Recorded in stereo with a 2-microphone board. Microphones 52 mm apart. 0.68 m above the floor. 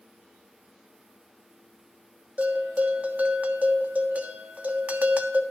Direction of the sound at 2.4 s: 30° right (ahead or behind).